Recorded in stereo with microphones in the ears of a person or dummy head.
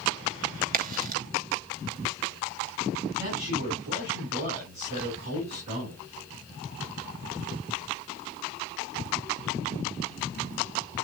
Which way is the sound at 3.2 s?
55° right (ahead or behind).